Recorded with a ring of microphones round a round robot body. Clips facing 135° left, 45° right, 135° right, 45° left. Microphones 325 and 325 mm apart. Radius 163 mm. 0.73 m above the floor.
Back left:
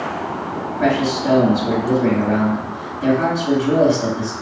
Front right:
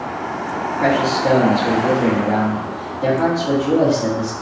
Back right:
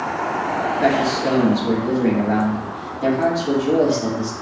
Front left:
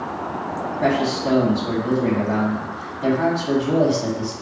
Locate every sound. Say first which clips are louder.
0.8 s a man speaking: even, back right 1 dB; 155° right, 1.9 m